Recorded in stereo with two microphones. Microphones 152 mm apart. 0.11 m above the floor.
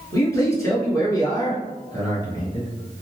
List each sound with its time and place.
0.1 s a man speaking: 20° left (ahead or behind), 1.5 m; by 2.7 s 25° left (ahead or behind), 1.8 m